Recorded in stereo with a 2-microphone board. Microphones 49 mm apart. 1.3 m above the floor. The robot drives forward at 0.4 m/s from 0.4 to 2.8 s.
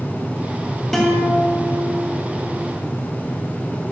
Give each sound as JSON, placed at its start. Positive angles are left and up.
{"t": 0.9, "sound": "a guitar", "side_deg": 5, "distance_m": 3.0}